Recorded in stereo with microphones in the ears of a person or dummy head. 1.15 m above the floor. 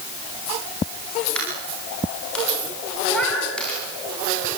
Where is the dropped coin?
5° left (ahead or behind), 8.5 m.